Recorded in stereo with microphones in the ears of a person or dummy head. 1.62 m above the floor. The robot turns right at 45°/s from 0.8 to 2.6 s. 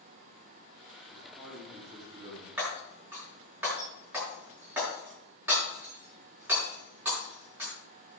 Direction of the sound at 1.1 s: 165° left.